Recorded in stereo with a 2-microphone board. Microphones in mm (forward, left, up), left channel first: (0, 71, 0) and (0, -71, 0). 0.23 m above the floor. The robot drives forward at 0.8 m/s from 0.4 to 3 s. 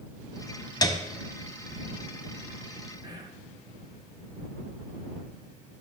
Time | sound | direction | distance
0.8 | a piano | 30° left (ahead or behind) | 1.1 m
3.0 | whispering | 30° right (ahead or behind) | 3 m